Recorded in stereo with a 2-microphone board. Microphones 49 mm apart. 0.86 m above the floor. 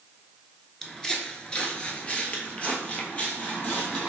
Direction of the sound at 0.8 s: 10° left (ahead or behind).